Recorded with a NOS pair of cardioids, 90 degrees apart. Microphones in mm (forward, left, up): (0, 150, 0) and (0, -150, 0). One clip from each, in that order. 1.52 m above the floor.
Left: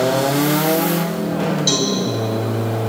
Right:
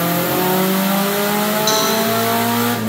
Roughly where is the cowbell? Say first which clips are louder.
Right 1 dB; ahead.